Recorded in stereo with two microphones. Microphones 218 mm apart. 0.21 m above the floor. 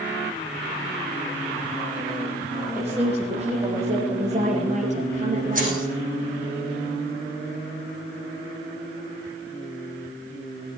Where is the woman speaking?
30° right (ahead or behind), 10 m; by 6.0 s 40° right (ahead or behind), 5 m.